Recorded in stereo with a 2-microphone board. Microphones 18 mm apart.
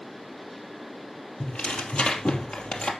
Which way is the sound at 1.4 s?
80° left.